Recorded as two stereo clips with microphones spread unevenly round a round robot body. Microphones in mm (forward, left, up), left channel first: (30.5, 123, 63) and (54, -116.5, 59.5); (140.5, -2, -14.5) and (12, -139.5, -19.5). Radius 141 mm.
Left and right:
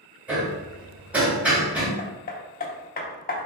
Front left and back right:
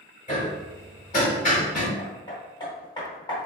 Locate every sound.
0.3 s hammering: straight ahead, 1.8 m
2.0 s hammering: 105° left, 0.7 m